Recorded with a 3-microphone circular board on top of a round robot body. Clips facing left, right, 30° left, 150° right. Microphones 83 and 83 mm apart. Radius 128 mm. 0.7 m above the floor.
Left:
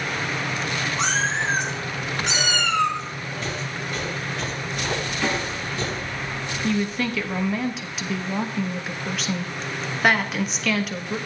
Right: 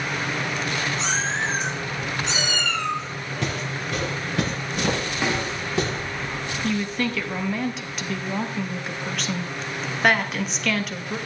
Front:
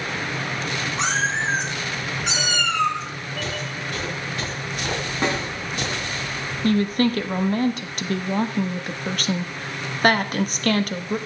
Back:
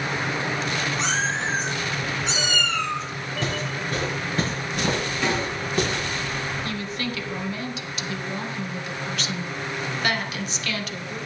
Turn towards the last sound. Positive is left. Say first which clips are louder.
# left 1 dB, front 10 dB
turn(degrees=0)